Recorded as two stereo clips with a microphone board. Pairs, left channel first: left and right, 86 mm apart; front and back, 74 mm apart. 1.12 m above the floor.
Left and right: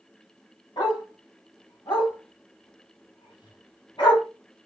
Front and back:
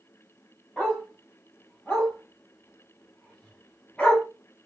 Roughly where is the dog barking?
Left.